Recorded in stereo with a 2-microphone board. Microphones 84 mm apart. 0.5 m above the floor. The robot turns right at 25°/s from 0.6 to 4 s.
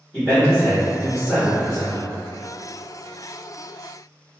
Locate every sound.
0.1 s a man speaking: 10° left, 1.2 m; by 2.1 s 45° left, 1.2 m